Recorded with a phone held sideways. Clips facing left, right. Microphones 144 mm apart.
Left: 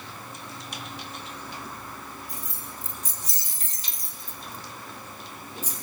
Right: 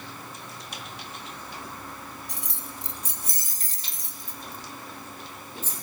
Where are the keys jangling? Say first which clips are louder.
Even; 80° right, 0.9 m; by 5.7 s 15° left (ahead or behind), 1.4 m.